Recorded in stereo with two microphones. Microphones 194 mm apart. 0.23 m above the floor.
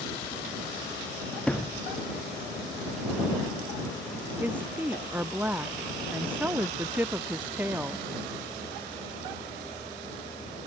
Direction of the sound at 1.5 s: 5° left (ahead or behind).